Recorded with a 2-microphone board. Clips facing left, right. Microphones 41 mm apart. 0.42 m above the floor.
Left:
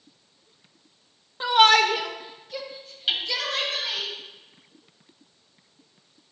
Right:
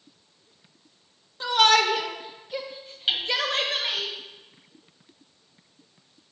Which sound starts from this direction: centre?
Hammering, at 3.1 s.